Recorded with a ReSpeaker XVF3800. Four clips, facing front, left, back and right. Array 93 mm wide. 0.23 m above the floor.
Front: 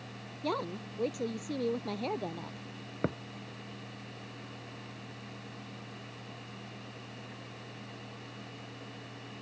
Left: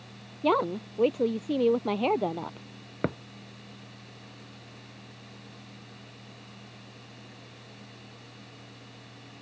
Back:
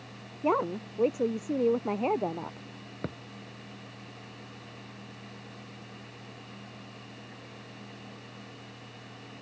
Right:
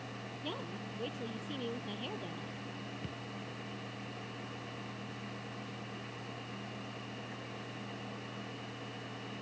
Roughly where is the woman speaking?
Behind left.